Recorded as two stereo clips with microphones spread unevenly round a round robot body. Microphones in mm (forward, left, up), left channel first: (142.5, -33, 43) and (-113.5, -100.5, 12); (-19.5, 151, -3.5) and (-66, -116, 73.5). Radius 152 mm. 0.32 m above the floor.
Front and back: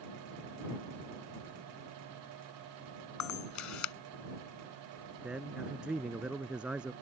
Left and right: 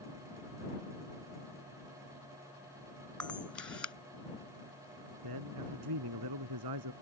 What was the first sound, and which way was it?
A camera shutter, 5° right.